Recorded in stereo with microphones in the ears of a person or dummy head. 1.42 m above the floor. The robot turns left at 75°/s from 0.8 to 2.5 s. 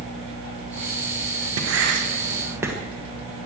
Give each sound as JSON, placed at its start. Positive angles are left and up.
{"t": 1.6, "sound": "writing", "side_deg": -85, "distance_m": 1.5}